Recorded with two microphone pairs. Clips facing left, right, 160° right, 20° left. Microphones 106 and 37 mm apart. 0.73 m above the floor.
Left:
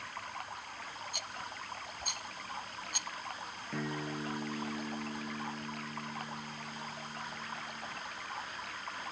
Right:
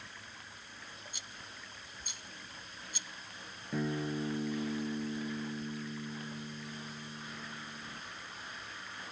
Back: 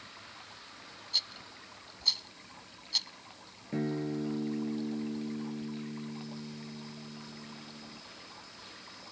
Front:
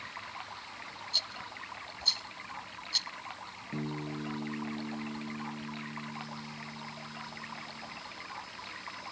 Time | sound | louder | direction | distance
0.0 | running water | left 9 dB, front 7 dB | 65° left | ?
1.1 | a rattle | left 8 dB, even | 115° left | ?
3.7 | a guitar | right 4 dB, back 5 dB | 165° right | ?